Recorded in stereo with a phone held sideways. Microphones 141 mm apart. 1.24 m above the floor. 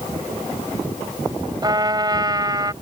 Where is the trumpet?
30° right (ahead or behind).